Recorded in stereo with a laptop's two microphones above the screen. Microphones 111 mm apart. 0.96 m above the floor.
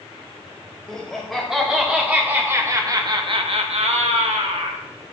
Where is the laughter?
Centre (ahead or behind), 2.5 m; by 4.8 s 65° right (ahead or behind), 1.7 m.